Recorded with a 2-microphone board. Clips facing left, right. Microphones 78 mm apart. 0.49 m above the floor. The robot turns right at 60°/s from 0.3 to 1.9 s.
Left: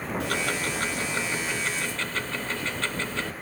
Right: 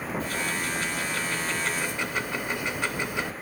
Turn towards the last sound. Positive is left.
turn(degrees=-165)